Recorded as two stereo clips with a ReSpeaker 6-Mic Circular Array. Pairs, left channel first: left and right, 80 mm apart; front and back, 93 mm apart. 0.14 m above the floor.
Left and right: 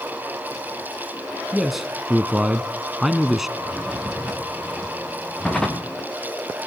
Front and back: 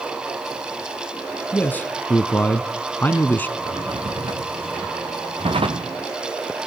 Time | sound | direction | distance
1.5 | a man speaking | 10° right | 1.1 m
3.6 | a drawer | 175° left | 3.5 m